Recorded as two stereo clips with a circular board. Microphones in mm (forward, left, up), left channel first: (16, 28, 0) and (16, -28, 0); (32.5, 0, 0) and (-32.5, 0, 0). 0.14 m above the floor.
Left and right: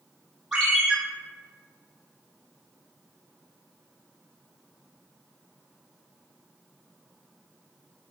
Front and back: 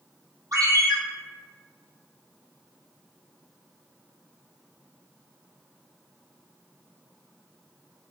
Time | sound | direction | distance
0.5 | a ringtone | 165° right | 2.0 m